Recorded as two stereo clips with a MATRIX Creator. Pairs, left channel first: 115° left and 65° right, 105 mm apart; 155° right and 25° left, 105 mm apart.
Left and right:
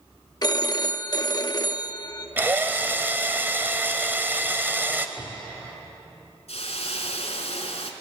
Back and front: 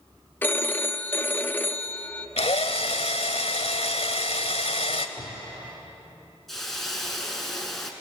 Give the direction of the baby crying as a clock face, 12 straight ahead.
I don't hear a baby crying.